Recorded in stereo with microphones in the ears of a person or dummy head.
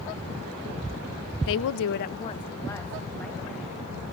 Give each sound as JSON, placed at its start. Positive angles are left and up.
{"t": 1.5, "sound": "a woman speaking", "side_deg": 65, "distance_m": 0.7}